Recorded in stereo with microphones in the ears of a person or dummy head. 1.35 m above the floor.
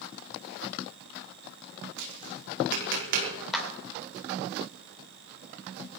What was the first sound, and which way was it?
Tapping, 70° right (ahead or behind).